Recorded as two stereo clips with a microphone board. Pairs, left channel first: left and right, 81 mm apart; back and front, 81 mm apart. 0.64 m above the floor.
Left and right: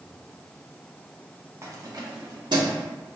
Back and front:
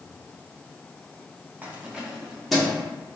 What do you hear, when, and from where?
1.6 s keys jangling: 55° right, 0.7 m; by 2.8 s 95° right, 1.2 m